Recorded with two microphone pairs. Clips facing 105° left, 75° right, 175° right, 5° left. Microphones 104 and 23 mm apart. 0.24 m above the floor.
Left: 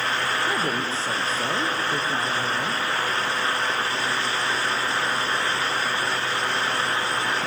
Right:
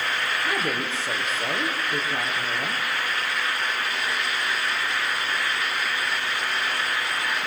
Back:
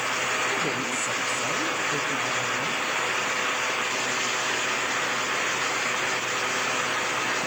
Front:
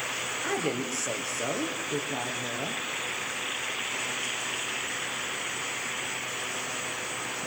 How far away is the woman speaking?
About 6 m.